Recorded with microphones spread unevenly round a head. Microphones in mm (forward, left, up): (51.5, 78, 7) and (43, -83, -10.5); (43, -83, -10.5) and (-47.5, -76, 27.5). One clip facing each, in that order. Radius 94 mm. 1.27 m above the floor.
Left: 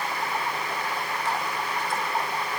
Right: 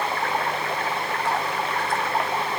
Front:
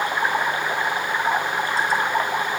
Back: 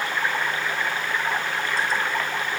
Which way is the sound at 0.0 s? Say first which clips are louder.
Right 4 dB, front 4 dB; 65° right.